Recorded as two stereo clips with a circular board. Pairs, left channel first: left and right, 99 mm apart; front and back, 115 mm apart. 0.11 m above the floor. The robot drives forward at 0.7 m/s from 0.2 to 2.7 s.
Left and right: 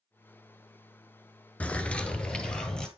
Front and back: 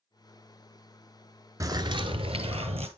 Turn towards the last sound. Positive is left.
turn(degrees=170)